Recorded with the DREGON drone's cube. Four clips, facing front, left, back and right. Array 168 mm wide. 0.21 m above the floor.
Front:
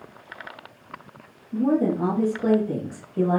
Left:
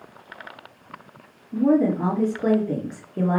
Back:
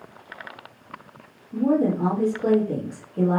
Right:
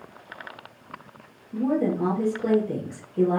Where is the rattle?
I don't hear a rattle.